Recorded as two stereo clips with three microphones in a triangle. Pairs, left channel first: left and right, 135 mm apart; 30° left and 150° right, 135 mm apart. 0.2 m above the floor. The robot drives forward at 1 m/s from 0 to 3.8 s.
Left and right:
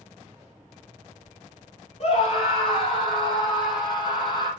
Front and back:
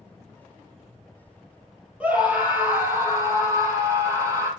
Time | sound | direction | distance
2.0 | a scream | 130° left | 4.5 m